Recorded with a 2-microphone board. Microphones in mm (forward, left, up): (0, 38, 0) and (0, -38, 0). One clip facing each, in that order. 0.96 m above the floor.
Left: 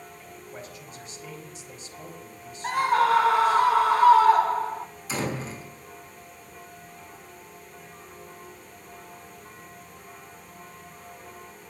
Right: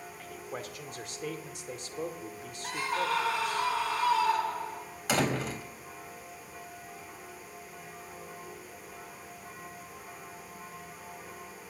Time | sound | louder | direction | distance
0.2 | a man speaking | right 4 dB | 70° right (ahead or behind) | 2.5 m
2.6 | a scream | left 10 dB | 50° left (ahead or behind) | 0.8 m
5.1 | a door slam | right 2 dB | 80° right | 4 m